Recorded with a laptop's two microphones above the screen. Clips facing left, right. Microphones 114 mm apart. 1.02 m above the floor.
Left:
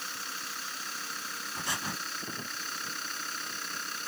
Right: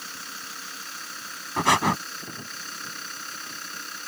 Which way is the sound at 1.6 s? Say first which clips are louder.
Right 17 dB; 90° right.